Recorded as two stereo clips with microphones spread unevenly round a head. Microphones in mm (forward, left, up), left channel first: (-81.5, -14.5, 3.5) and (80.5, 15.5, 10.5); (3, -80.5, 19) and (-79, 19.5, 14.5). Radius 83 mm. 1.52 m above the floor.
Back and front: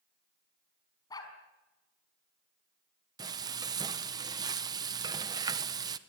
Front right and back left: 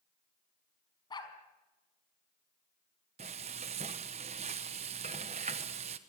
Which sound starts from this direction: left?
Frying, at 3.2 s.